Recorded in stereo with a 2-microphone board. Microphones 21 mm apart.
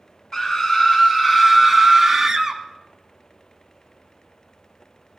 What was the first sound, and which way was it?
A scream, 30° left (ahead or behind).